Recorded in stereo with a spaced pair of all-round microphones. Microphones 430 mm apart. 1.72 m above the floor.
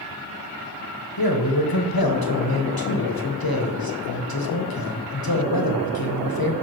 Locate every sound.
1.2 s a man speaking: 60° left (ahead or behind), 1.1 m